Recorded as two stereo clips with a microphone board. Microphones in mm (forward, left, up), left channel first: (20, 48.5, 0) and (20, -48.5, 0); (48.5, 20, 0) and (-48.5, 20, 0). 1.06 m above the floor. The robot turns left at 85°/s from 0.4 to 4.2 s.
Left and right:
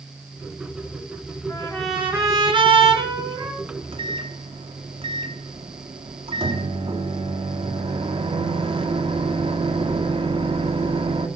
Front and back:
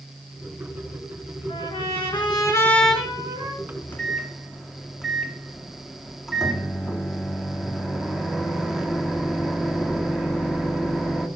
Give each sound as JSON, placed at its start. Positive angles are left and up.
{"t": 1.5, "sound": "a trumpet", "azimuth_deg": 30, "distance_m": 5.5}
{"t": 3.6, "sound": "a microwave", "azimuth_deg": -45, "distance_m": 1.9}